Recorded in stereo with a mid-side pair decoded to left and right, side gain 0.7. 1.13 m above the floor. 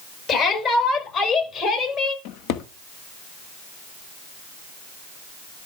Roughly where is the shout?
Ahead left.